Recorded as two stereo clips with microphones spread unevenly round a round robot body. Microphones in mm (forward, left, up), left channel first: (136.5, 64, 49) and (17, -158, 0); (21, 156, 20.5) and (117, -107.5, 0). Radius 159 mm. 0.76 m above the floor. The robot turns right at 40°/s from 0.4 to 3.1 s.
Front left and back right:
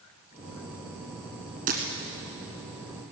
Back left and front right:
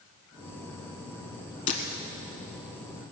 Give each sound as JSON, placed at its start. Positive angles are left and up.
{"t": 1.7, "sound": "breaking glass", "azimuth_deg": 170, "distance_m": 1.2}